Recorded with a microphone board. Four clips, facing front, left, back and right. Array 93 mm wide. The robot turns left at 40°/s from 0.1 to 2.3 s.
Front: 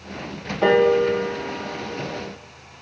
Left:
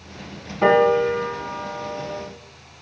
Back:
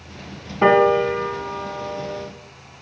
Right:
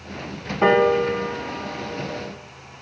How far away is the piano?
About 1.2 m.